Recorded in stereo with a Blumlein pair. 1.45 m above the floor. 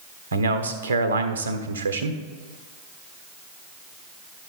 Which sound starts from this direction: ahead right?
A man speaking, at 0.3 s.